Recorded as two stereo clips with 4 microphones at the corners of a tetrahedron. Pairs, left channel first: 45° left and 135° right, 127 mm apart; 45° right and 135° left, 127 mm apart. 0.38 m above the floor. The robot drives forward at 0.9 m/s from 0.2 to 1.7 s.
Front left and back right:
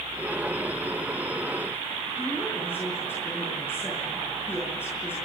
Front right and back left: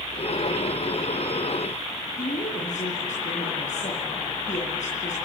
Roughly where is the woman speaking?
Ahead right.